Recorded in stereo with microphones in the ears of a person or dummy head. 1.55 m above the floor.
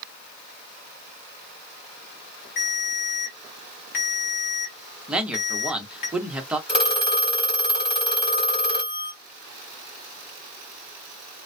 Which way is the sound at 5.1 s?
5° right (ahead or behind).